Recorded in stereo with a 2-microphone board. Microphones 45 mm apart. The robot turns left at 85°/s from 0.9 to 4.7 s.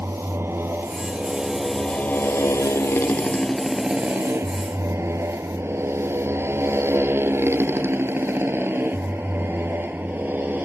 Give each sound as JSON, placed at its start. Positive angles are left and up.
{"t": 0.0, "sound": "a motorcycle", "side_deg": -70}